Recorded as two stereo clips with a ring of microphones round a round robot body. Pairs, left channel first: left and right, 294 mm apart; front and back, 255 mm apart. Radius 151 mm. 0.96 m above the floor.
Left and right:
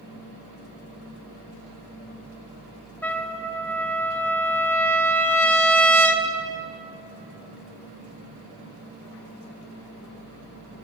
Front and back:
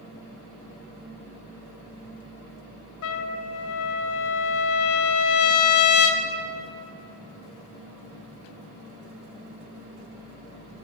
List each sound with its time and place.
3.0 s a trumpet: 5° left, 1.0 m